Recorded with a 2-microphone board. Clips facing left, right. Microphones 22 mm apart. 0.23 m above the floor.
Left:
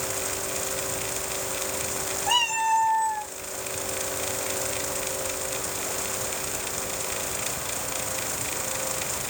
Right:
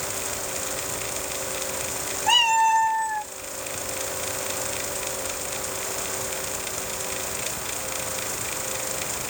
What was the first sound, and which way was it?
A cat meowing, 40° right (ahead or behind).